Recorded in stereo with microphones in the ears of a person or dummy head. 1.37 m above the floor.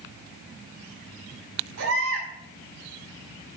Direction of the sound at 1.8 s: 80° right.